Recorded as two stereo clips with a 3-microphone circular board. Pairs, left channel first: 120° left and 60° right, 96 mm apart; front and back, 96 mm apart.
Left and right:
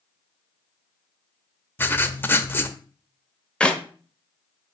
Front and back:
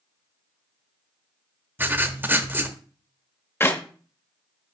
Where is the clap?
45° left, 1.2 m.